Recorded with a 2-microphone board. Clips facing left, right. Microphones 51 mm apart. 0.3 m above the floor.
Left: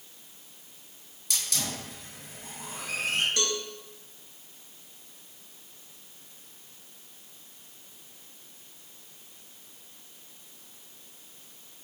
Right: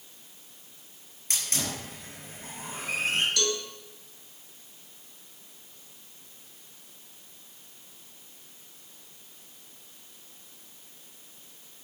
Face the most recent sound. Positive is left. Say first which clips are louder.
# right 1 dB
turn(degrees=30)  # may be behind; listen again after turning